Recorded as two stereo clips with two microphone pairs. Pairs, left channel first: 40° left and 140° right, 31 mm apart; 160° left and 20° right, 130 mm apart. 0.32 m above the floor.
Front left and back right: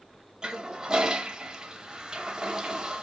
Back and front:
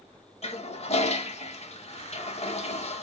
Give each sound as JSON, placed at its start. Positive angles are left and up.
{"t": 0.4, "sound": "a toilet flushing", "azimuth_deg": 160, "distance_m": 0.7}